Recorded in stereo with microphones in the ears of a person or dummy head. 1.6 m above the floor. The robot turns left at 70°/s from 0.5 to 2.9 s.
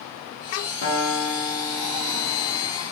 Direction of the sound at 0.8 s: 100° left.